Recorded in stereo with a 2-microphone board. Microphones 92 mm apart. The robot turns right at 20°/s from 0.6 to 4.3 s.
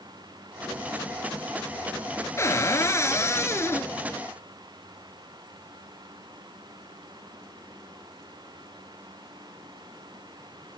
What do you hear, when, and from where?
2.4 s a cupboard door: 85° left, 0.8 m; by 3.9 s 115° left, 0.8 m